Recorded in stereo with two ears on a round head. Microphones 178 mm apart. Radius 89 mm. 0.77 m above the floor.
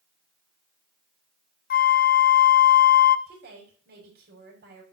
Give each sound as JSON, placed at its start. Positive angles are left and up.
{"t": 1.7, "sound": "a flute", "side_deg": 45, "distance_m": 0.7}
{"t": 3.3, "sound": "a woman speaking", "side_deg": -50, "distance_m": 5.5}